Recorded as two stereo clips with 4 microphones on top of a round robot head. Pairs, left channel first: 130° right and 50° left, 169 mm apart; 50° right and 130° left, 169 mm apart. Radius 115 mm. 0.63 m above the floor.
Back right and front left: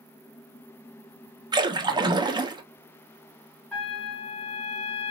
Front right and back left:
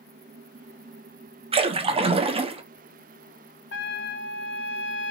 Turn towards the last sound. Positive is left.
turn(degrees=-45)